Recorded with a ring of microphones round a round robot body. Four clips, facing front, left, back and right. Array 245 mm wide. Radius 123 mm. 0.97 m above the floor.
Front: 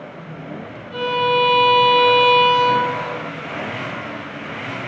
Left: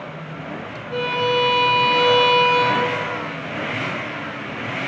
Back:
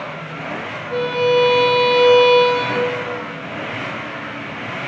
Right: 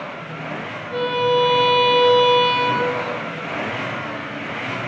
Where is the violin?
175° left, 4 m.